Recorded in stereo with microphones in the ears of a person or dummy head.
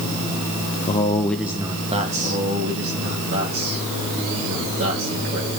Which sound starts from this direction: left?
A man speaking, at 0.9 s.